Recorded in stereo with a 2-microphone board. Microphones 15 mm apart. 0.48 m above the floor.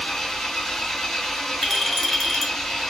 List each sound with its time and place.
0.0 s an engine running: 65° left (ahead or behind), 1.5 m
1.6 s a clink: 5° left (ahead or behind), 0.9 m